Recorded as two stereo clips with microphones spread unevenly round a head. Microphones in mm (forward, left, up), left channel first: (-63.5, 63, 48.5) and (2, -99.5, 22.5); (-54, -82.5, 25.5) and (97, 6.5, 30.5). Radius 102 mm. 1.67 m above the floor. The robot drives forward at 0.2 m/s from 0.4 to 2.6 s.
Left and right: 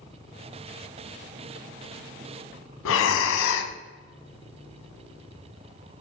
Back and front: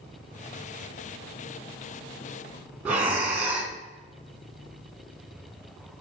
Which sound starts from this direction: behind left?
Breathing, at 2.9 s.